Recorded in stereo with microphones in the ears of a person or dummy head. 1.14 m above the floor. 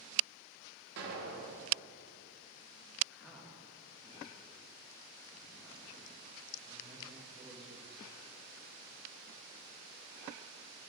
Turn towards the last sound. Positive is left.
turn(degrees=0)  # may be behind; listen again after turning